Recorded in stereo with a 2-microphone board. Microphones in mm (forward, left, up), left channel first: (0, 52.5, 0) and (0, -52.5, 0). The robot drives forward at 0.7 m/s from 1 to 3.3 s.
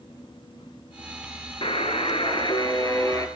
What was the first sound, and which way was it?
A buzzer, 60° left (ahead or behind).